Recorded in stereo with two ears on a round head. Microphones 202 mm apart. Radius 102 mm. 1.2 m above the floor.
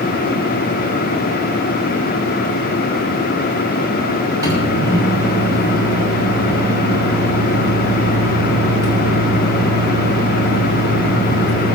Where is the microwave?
15° right (ahead or behind), 6 m.